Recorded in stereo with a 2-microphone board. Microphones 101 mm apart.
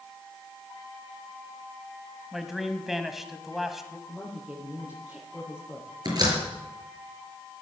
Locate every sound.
2.3 s a man speaking: centre (ahead or behind), 1.7 m
4.1 s a woman speaking: 10° right (ahead or behind), 6.5 m
6.0 s a door slam: 40° right (ahead or behind), 5 m